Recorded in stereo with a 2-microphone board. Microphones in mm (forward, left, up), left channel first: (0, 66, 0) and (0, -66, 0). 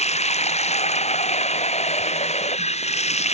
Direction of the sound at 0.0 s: 55° left (ahead or behind).